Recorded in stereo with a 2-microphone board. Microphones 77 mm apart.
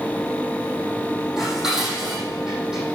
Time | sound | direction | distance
1.4 | dishes clattering | 5° right (ahead or behind) | 5.5 m